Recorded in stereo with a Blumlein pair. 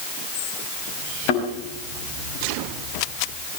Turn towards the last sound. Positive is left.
turn(degrees=45)